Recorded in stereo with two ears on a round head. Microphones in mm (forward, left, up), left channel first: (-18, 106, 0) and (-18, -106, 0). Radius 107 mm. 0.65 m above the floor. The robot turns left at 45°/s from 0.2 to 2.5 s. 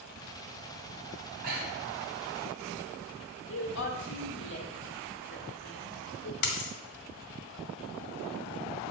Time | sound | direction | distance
1.4 | breathing | 35° right (ahead or behind) | 1.4 m
3.5 | a woman speaking | 50° left (ahead or behind) | 1.5 m
6.4 | a dropped coin | 85° left | 1.3 m